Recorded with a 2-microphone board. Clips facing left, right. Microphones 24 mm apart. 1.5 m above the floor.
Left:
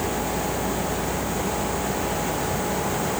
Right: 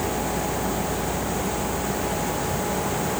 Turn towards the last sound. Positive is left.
No sound to turn to.